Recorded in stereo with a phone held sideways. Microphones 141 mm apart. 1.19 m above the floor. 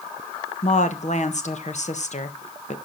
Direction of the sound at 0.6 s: 55° left (ahead or behind).